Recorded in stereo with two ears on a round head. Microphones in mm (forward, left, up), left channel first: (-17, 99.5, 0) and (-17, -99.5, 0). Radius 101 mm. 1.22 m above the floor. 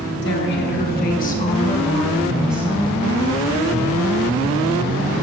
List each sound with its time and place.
0.2 s a woman speaking: 55° left (ahead or behind), 1.8 m; by 3.0 s 25° right (ahead or behind), 0.9 m